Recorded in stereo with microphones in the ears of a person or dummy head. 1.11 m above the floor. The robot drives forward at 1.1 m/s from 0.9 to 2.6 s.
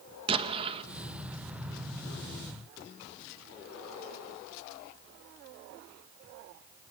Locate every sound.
0.3 s an explosion: 30° right (ahead or behind), 1.3 m